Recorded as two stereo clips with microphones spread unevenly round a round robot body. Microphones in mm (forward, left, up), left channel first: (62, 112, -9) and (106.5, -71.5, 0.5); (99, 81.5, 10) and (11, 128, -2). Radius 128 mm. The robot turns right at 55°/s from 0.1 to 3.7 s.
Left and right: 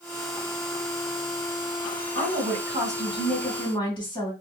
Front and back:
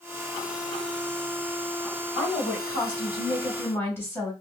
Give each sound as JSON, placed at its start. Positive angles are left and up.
{"t": 2.1, "sound": "a woman speaking", "azimuth_deg": -45, "distance_m": 2.5}